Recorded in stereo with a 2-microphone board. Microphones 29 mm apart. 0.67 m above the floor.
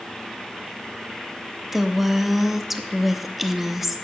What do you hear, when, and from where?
1.7 s a woman speaking: 10° right (ahead or behind), 0.5 m